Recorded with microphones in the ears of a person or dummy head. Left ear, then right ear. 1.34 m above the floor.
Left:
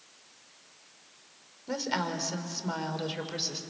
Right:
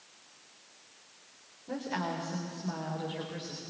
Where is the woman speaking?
85° left, 4 m; by 3.6 s 70° left (ahead or behind), 4.5 m.